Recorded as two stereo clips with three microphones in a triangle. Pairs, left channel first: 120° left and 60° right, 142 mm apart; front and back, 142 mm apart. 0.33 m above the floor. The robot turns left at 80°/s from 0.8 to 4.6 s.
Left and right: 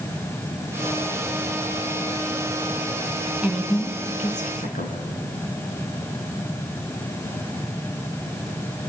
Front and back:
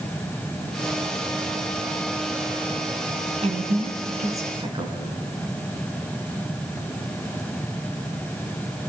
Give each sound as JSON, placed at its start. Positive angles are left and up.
{"t": 3.4, "sound": "a woman speaking", "azimuth_deg": -140, "distance_m": 3.5}